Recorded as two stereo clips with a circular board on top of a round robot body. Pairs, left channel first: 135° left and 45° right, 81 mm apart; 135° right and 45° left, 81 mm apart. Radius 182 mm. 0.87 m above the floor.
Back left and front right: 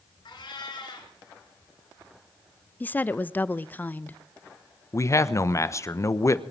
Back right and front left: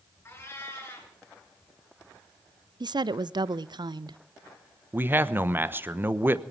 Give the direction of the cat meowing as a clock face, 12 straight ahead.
6 o'clock.